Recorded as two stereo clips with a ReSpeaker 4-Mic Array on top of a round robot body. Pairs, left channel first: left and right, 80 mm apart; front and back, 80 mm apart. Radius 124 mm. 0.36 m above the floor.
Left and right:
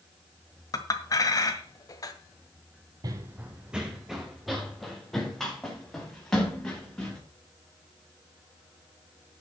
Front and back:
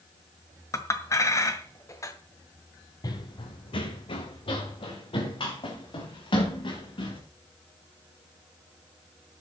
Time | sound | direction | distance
0.7 | a clink | 50° left | 1.8 m
3.0 | running footsteps | 45° right | 0.7 m